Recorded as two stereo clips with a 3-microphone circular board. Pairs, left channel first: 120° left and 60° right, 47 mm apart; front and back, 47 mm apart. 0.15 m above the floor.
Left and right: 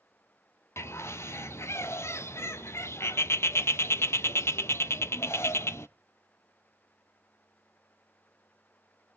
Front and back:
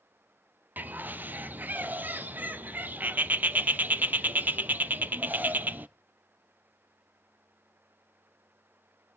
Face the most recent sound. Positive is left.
turn(degrees=130)